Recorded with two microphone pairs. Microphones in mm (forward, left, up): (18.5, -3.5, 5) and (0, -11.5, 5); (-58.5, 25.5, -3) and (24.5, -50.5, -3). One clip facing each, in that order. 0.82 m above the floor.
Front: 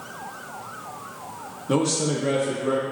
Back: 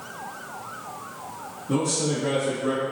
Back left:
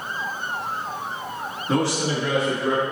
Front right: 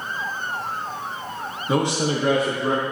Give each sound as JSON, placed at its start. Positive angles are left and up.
{"t": 1.7, "sound": "a man speaking", "azimuth_deg": 35, "distance_m": 0.8}